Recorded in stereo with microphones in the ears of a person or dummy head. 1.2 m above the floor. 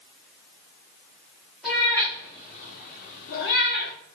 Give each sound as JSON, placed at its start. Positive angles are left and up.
{"t": 1.6, "sound": "a cat meowing", "side_deg": -5, "distance_m": 1.0}